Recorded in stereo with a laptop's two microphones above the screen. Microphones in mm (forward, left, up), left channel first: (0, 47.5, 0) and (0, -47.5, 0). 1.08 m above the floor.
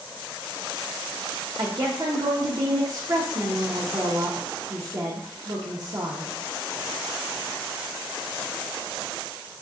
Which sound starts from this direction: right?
A woman speaking, at 1.6 s.